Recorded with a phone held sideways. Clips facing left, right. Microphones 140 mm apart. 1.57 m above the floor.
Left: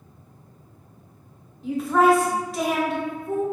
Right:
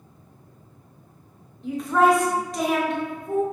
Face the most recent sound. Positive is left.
turn(degrees=5)  # may be behind; listen again after turning